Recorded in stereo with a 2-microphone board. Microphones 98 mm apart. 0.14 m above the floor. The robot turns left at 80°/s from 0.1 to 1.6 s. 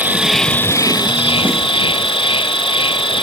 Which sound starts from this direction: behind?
An insect, at 0.0 s.